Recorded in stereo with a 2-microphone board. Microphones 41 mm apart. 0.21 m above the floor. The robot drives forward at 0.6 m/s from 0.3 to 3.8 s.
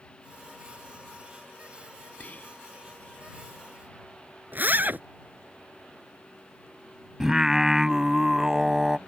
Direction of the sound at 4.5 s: 45° right (ahead or behind).